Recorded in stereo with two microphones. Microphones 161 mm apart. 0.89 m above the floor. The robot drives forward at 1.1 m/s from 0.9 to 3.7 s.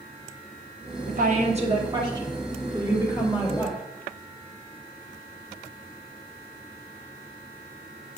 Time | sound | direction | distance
1.1 | a woman speaking | 60° right (ahead or behind) | 0.9 m